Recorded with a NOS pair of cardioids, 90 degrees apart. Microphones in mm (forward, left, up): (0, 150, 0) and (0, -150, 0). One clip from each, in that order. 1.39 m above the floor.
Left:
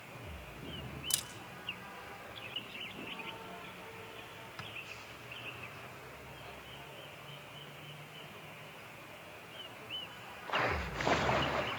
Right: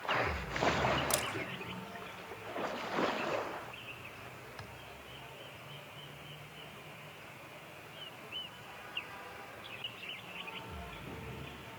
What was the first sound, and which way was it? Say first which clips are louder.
A camera shutter: right 5 dB; straight ahead.